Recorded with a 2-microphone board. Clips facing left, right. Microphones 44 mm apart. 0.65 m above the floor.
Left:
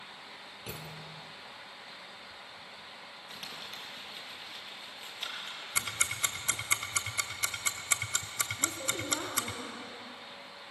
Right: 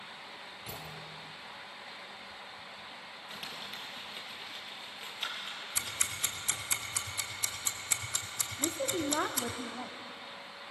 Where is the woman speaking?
45° right (ahead or behind), 1.5 m.